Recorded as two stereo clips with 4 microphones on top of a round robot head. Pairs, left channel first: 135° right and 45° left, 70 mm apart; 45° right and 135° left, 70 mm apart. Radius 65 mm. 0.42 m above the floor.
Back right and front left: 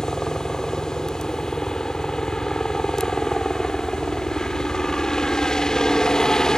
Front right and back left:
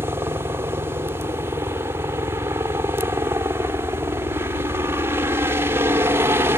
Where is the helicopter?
150° left.